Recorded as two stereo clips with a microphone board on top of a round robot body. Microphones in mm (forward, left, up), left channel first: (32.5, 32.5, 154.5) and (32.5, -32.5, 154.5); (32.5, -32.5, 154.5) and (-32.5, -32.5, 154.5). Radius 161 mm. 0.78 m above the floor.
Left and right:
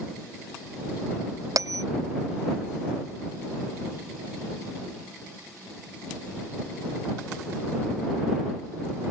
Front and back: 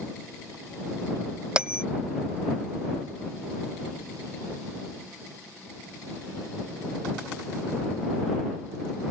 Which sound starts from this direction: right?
A bell, at 1.6 s.